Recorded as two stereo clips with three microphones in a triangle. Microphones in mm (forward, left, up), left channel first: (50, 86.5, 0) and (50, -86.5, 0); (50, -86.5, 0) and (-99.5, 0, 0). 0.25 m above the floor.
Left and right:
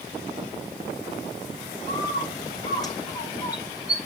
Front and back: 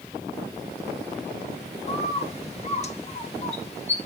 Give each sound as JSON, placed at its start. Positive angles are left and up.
{"t": 1.9, "sound": "a bird", "azimuth_deg": 20, "distance_m": 1.2}